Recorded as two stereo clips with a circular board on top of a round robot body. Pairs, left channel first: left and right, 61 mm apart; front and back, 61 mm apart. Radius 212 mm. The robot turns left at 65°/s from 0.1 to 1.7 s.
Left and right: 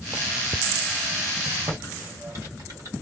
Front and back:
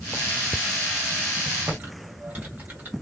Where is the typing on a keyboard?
115° right, 1.4 m.